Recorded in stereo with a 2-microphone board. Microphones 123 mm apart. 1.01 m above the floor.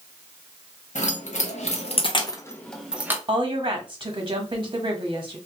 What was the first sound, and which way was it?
Keys jangling, 75° left (ahead or behind).